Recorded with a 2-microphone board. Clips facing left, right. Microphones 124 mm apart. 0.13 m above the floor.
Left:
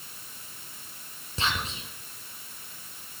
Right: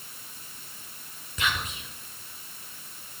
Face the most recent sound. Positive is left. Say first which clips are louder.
# even
turn(degrees=30)  # may be behind; listen again after turning